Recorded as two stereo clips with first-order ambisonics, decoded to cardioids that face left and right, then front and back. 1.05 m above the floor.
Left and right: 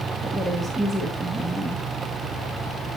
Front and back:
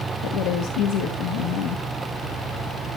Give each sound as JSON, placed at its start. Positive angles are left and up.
{"t": 0.2, "sound": "a woman speaking", "azimuth_deg": -5, "distance_m": 1.2}